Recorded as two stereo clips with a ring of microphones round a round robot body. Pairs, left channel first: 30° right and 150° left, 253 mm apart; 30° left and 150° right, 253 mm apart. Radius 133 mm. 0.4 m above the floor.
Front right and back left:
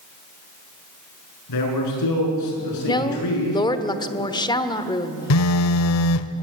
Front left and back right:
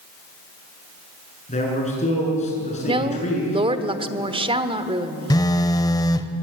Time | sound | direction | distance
1.5 | a man speaking | 35° right | 7 m
2.9 | a woman speaking | 95° right | 1.2 m
5.3 | a phone buzzing | 45° right | 0.9 m